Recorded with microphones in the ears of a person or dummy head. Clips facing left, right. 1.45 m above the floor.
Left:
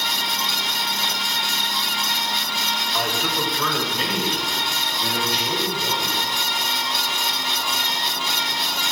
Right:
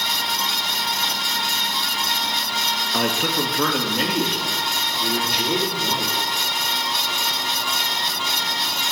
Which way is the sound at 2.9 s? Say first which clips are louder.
Right 4 dB; 45° right (ahead or behind).